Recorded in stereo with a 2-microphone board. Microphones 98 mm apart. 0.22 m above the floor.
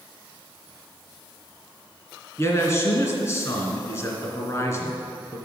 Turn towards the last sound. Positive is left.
turn(degrees=35)  # may be behind; listen again after turning